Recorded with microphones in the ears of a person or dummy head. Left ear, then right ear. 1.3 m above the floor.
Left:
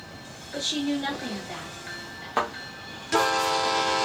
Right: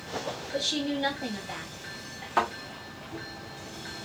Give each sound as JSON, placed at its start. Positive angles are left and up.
{"t": 0.5, "sound": "a woman speaking", "side_deg": -10, "distance_m": 1.5}
{"t": 2.4, "sound": "a thud", "side_deg": 10, "distance_m": 0.9}